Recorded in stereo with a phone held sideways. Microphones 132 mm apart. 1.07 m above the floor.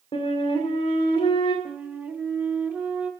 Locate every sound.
0.1 s a flute: 50° left (ahead or behind), 2 m
1.6 s a flute: 15° right (ahead or behind), 1.0 m